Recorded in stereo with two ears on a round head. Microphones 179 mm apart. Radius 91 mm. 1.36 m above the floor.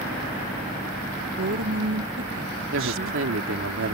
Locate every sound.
1.4 s a woman speaking: 75° right (ahead or behind)
2.7 s a woman speaking: 75° right (ahead or behind)